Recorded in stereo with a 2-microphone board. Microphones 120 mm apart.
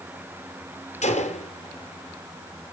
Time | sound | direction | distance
1.0 | a gunshot | 70° left (ahead or behind) | 1.8 m